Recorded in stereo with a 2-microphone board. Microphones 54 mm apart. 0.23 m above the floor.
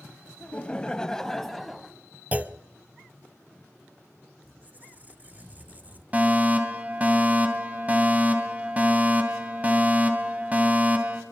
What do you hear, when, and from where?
0.4 s laughter: 25° left (ahead or behind), 1.4 m; by 1.9 s centre (ahead or behind), 1.8 m
2.3 s a clunk: 30° right (ahead or behind), 0.8 m
4.4 s a squeak: 30° right (ahead or behind), 1.0 m
6.1 s a fire alarm: 30° right (ahead or behind), 2.5 m